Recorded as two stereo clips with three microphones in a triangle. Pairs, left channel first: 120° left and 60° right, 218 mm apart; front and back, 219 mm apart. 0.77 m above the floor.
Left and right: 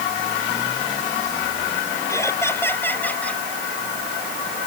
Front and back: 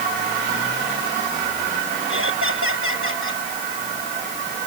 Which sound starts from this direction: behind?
Laughter, at 2.1 s.